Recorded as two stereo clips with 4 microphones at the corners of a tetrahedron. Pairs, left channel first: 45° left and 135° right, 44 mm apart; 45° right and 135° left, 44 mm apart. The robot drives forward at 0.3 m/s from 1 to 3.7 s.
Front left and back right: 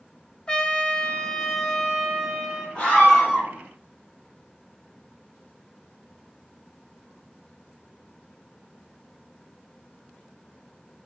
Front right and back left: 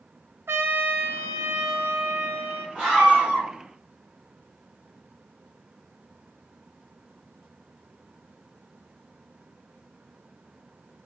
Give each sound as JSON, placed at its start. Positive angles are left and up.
{"t": 0.5, "sound": "a trumpet", "azimuth_deg": 115, "distance_m": 0.5}
{"t": 2.8, "sound": "a scream", "azimuth_deg": 75, "distance_m": 1.8}